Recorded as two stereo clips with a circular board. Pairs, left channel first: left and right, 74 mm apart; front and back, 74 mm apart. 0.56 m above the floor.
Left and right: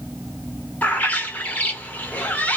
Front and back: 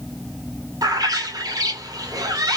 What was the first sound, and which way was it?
A bird, 155° left.